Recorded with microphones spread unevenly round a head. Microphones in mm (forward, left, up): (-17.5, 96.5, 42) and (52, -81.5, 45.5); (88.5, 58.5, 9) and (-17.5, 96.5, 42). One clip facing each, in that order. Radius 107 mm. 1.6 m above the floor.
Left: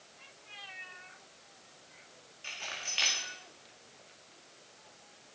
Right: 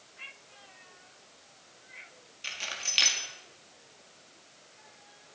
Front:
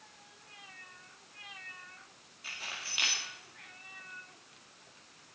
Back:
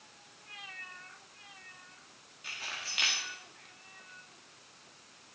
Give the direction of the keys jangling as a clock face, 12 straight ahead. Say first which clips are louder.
Right 1 dB, back 1 dB; 4 o'clock.